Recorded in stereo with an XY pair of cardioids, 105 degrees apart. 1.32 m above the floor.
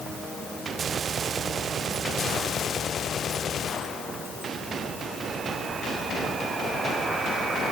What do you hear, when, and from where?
Only background noise.